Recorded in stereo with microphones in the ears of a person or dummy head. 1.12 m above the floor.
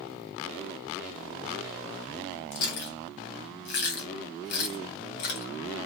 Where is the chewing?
50° left (ahead or behind), 1.2 m.